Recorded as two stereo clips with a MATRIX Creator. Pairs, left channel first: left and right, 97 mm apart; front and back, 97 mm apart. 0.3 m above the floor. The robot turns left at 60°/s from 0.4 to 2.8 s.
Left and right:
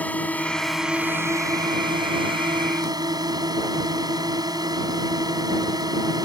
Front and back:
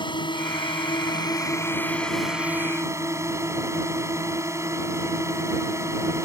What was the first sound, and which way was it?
A drone, 20° left.